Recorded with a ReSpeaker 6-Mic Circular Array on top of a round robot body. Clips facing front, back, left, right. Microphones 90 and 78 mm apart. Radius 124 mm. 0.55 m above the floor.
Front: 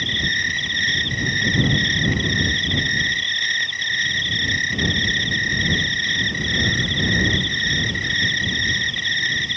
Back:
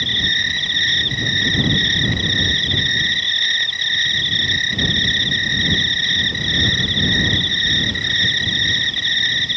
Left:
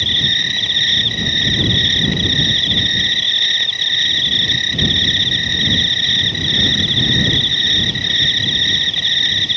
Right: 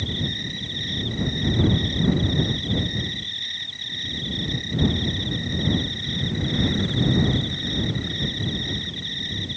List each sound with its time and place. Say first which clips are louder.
0.0 s an insect: even, left 7 dB; 95° left